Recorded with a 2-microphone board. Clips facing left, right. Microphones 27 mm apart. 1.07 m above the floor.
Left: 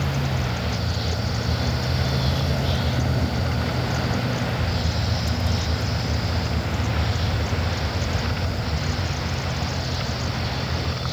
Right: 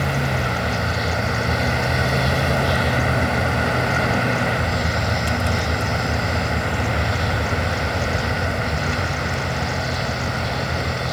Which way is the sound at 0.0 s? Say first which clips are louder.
Right 5 dB; 85° right.